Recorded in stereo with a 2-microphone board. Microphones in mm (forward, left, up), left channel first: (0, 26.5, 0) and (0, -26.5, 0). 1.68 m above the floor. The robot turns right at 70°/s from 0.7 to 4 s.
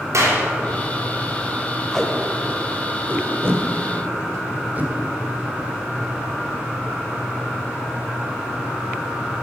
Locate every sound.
0.1 s a clap: 65° right (ahead or behind), 4 m
1.9 s tape being pulled: 15° left (ahead or behind), 1.8 m; by 4.9 s 35° right (ahead or behind), 1.8 m